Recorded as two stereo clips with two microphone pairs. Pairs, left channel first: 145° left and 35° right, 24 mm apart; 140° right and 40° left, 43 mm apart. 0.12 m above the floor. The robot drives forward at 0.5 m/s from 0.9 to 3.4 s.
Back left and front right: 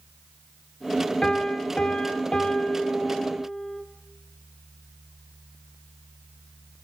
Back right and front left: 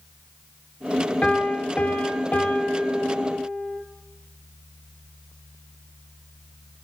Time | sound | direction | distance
1.2 | a piano | straight behind | 0.8 m